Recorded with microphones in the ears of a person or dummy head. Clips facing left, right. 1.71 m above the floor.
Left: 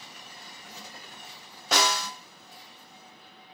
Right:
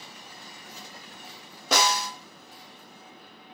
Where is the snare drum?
85° right, 1.0 m.